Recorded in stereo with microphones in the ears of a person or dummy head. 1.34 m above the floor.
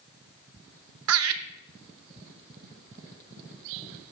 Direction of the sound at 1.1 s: 75° right (ahead or behind).